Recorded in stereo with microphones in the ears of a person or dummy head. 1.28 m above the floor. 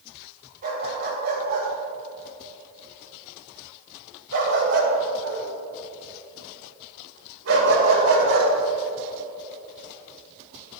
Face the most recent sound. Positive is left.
turn(degrees=-75)  # may be behind; listen again after turning